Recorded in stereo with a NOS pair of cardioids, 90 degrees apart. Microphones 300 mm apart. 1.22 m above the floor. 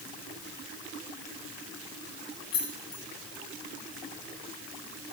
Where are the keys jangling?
70° left, 2 m.